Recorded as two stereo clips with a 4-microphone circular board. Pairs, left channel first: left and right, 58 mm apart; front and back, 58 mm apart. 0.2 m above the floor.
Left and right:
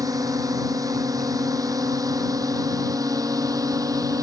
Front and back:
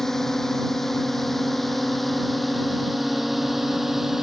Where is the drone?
85° right; by 4.2 s 95° right.